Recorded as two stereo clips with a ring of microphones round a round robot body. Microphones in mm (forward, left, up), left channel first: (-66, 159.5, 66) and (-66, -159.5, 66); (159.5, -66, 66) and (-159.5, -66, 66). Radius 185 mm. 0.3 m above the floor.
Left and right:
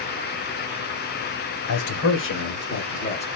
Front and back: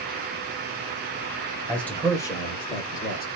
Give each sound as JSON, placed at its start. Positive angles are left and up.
{"t": 1.7, "sound": "a man speaking", "azimuth_deg": 85, "distance_m": 1.7}